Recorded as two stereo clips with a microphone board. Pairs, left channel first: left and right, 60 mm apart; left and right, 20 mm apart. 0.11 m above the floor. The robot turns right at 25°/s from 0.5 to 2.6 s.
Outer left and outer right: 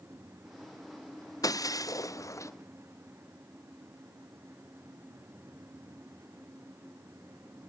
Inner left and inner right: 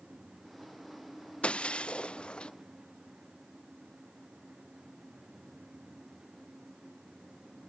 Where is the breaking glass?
85° left; by 2.5 s 60° left (ahead or behind).